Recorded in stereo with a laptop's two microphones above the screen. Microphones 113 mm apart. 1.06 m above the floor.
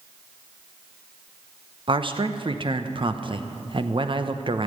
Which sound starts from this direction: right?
A man speaking, at 1.9 s.